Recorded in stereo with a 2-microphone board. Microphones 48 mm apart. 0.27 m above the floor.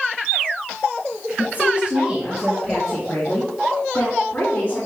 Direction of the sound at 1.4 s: 40° right (ahead or behind).